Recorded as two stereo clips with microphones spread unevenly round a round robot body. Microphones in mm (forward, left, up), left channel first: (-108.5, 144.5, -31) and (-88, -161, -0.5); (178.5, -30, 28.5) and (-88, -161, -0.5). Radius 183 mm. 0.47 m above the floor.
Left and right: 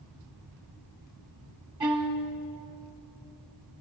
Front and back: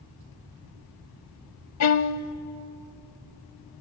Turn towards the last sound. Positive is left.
turn(degrees=-10)